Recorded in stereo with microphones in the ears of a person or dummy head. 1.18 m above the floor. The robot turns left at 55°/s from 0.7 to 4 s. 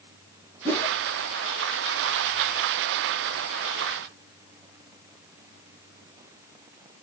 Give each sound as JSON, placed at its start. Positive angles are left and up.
{"t": 0.7, "sound": "a whoosh", "side_deg": 15, "distance_m": 1.4}